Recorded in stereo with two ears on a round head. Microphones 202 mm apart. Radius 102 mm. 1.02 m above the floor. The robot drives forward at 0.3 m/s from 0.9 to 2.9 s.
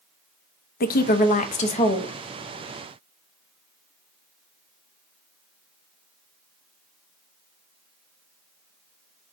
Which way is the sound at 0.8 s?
45° left (ahead or behind).